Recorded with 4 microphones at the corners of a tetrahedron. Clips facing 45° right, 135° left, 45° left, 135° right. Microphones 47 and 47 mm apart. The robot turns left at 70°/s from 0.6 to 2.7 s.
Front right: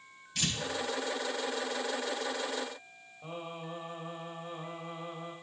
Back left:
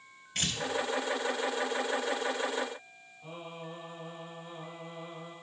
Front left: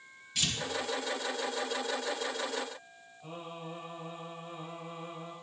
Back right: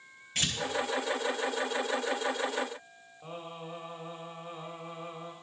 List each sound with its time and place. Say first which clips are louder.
0.3 s tearing paper: even, back right 1 dB; 175° left, 3.5 m
3.2 s singing: front right 2 dB, back right 1 dB; 90° right, 4 m